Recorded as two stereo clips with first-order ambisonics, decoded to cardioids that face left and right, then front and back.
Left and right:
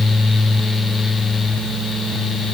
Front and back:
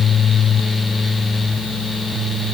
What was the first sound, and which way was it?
Only background noise.